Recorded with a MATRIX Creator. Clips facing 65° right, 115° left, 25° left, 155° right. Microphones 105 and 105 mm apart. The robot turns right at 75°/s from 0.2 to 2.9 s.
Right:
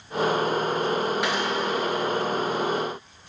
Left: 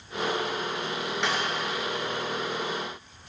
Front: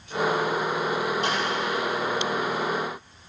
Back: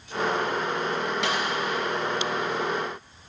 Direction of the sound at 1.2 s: 150° right.